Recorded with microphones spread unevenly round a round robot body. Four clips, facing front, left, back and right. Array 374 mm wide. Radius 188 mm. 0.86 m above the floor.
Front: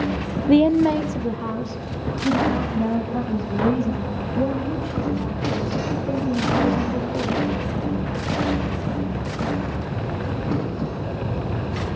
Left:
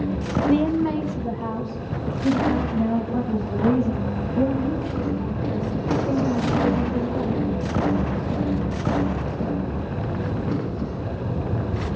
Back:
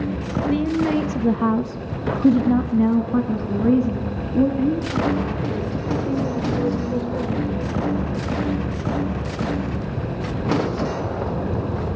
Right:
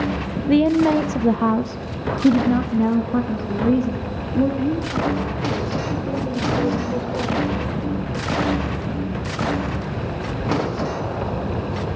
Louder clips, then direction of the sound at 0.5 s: Right 6 dB, front 6 dB; 25° right.